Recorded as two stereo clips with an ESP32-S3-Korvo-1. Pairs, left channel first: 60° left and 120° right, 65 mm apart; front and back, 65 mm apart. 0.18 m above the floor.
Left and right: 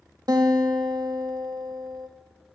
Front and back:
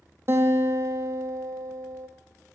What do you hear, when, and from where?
0.3 s a guitar: 130° right, 1.3 m